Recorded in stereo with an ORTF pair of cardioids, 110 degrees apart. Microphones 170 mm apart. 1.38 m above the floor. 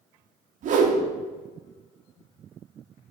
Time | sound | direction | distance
0.6 | a whoosh | 50° right | 0.7 m